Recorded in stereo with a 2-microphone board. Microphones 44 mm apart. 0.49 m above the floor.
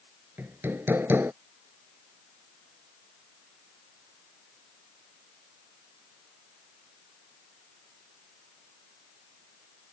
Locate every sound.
0.4 s hammering: 60° right (ahead or behind)